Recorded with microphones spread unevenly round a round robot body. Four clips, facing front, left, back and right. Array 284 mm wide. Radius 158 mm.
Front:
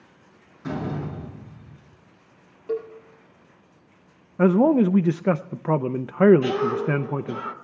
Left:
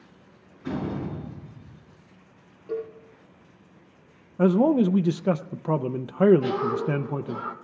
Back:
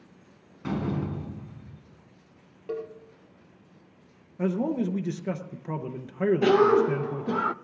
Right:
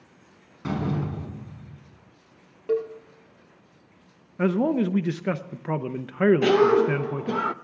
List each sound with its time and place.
0.6 s a door slam: 110° right, 5.5 m
2.7 s a cowbell: 85° right, 5.5 m
4.4 s a man speaking: 10° left, 0.6 m
6.4 s a cough: 130° right, 0.8 m